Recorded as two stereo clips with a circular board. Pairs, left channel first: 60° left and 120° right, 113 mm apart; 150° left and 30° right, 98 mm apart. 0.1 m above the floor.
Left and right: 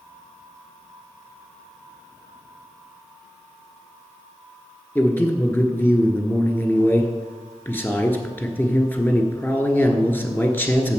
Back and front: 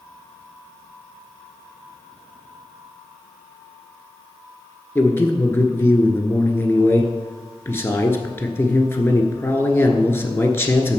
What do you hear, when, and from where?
5.0 s a man speaking: 115° left, 1.2 m